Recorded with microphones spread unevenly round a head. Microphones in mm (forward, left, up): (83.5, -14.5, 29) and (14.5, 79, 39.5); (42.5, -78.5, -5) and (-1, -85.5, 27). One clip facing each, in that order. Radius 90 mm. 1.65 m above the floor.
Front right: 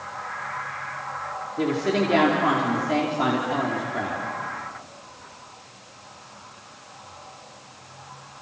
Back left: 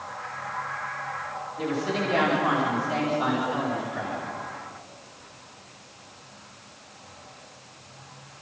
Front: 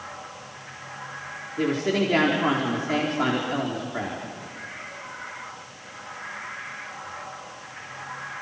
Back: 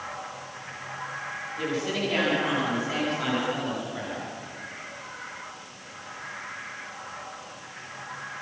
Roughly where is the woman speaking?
Ahead right.